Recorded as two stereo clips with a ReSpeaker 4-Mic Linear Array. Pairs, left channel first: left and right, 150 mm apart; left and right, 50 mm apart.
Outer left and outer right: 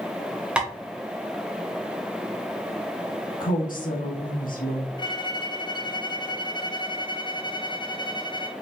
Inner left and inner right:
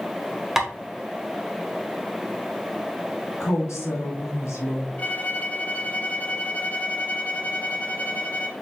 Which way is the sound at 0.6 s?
5° right (ahead or behind).